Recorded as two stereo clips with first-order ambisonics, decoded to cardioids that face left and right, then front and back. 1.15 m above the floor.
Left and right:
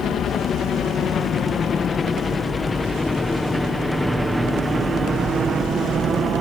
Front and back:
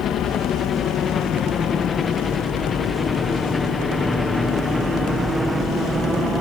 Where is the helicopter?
55° left; by 6.4 s 120° right.